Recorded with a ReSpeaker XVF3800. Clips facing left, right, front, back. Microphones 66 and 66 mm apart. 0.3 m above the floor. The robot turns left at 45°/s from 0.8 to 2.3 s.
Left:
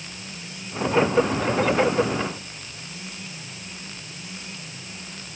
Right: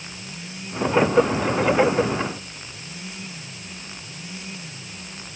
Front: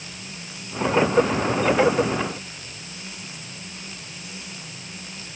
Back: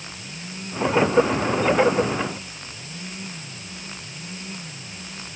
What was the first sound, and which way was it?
Only background noise.